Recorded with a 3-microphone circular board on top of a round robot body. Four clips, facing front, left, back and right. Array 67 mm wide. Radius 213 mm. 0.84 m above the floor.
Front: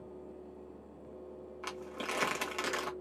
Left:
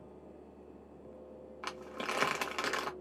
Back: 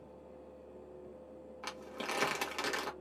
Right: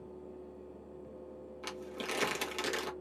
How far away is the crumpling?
About 1.3 m.